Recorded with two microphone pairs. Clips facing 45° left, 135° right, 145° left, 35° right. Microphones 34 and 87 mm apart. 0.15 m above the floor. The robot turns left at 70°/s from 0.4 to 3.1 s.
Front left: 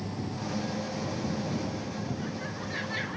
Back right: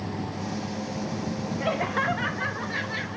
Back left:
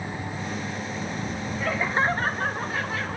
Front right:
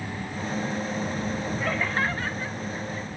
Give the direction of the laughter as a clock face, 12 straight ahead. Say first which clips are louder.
Back right 9 dB, back left 4 dB; 4 o'clock.